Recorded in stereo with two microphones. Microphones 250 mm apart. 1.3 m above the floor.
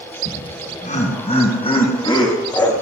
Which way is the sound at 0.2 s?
35° left (ahead or behind).